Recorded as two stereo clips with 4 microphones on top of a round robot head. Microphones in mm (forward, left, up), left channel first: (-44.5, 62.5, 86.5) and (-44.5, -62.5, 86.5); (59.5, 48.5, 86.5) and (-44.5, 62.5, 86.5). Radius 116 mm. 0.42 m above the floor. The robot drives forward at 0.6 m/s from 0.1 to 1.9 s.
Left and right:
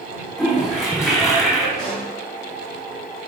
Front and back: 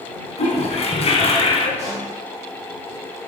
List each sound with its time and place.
0.4 s a toilet flushing: straight ahead, 1.9 m; by 1.7 s 5° right, 1.2 m
1.8 s a pop: 175° left, 3 m